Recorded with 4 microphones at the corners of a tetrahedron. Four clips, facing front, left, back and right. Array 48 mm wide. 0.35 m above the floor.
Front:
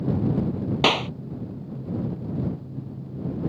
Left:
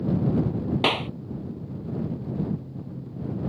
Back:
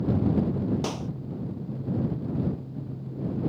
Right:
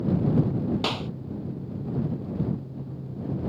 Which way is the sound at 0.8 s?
20° left.